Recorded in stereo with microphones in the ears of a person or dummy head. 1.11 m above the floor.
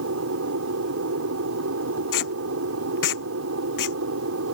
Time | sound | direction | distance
0.0 | an aircraft | 65° right (ahead or behind) | ?
2.1 | tape being pulled | 60° left (ahead or behind) | ?